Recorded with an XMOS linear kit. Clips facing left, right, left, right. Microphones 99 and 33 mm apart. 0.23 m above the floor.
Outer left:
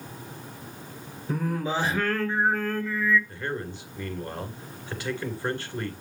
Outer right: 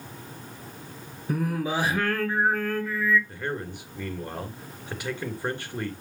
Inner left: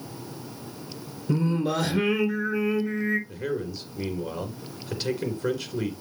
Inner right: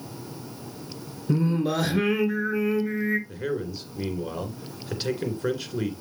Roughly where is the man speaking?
Centre.